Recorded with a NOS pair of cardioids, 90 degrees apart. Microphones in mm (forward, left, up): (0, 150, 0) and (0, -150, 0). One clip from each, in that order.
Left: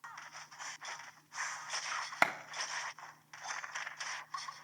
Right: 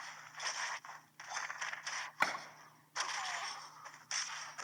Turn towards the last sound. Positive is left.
turn(degrees=35)